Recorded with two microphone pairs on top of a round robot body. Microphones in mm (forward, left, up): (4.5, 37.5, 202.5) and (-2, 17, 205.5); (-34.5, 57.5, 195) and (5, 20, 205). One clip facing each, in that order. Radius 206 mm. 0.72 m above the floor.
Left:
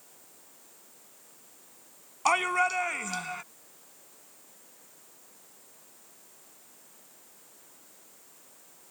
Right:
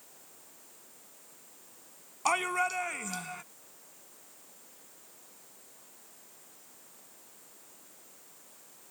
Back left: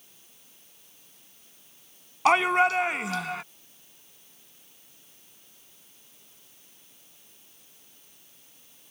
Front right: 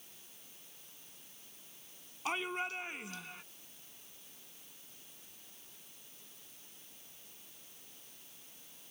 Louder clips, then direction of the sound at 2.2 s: Left 4 dB, back left 17 dB; 150° left.